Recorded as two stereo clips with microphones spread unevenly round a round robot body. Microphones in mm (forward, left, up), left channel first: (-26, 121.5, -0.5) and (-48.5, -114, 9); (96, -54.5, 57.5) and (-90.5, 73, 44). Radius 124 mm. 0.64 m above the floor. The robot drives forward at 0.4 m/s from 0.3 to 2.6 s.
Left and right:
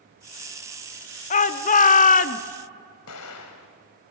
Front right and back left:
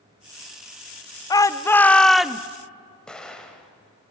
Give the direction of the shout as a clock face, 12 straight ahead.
11 o'clock.